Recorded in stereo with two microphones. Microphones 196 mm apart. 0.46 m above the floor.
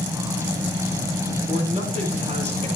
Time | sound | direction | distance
1.5 | a man speaking | 40° right (ahead or behind) | 8.5 m